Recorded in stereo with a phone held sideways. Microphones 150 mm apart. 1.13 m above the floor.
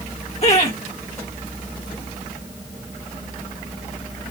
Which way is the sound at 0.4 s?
50° left (ahead or behind).